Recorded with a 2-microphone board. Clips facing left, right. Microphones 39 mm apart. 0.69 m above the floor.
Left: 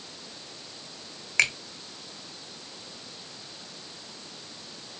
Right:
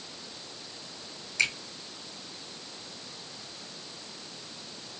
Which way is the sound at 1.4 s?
65° left (ahead or behind).